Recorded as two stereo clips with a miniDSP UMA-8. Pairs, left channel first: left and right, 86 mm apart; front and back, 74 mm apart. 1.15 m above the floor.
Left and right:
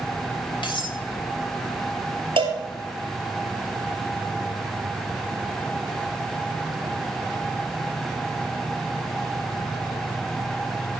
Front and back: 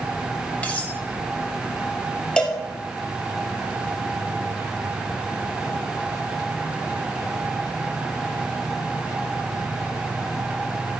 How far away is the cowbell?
About 2.5 m.